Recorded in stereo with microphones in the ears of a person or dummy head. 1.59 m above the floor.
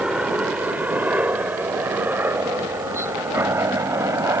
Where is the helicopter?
5° right (ahead or behind); by 4.4 s 15° right (ahead or behind).